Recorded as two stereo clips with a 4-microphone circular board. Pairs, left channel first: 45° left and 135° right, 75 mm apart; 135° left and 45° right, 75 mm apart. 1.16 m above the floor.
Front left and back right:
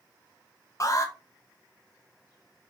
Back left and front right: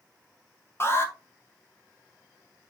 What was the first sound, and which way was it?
An alarm, 85° left.